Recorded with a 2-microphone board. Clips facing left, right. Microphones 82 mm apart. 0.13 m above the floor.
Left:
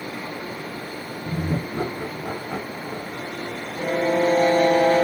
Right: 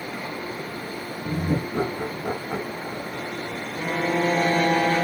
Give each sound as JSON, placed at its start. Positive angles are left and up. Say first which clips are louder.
{"t": 1.2, "sound": "laughter", "louder": "right 1 dB", "side_deg": -30, "distance_m": 2.0}
{"t": 3.8, "sound": "a violin", "louder": "left 3 dB", "side_deg": 35, "distance_m": 3.0}